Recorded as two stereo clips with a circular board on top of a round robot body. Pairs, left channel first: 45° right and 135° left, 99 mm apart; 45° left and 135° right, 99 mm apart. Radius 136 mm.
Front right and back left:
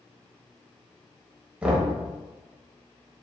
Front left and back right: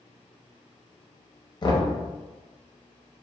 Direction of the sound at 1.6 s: 60° left.